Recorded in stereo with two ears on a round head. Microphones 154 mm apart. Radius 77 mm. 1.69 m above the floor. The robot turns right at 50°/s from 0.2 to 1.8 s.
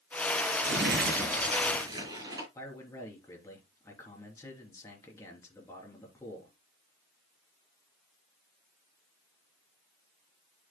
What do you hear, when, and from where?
0.6 s crumpling: 85° right, 6 m; by 2.5 s 25° right, 6 m
2.5 s a man speaking: 15° left (ahead or behind), 3.5 m